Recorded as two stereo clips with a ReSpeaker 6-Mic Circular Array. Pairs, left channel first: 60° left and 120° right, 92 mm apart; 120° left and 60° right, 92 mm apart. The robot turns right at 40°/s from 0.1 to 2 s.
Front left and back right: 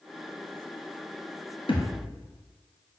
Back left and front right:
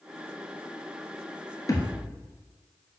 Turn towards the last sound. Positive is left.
turn(degrees=85)